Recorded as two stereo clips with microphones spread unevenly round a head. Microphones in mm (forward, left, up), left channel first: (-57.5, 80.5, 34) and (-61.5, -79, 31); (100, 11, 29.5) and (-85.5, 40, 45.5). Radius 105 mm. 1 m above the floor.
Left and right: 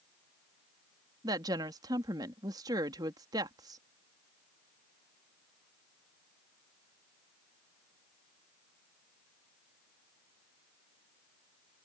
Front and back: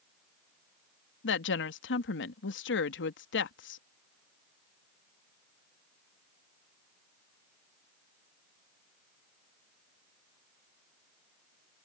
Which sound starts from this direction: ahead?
A woman speaking, at 1.2 s.